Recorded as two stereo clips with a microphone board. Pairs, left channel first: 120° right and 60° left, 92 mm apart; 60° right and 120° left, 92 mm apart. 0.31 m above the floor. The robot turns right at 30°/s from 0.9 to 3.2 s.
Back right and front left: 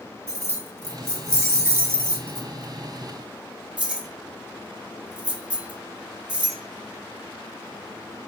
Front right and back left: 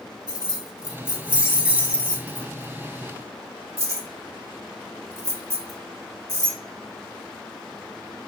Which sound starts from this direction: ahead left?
Keys jangling, at 0.3 s.